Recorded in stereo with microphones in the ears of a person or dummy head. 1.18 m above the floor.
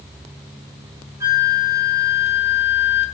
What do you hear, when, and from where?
1.2 s a flute: 15° right (ahead or behind), 3 m